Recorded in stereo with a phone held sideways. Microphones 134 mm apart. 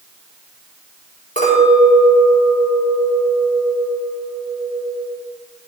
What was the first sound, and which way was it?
A clink, 80° left.